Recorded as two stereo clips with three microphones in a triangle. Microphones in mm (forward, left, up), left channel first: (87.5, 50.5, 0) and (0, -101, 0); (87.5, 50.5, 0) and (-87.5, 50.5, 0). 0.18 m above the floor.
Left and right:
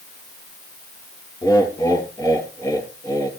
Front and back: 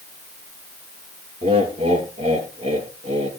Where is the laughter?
130° left, 3.5 m.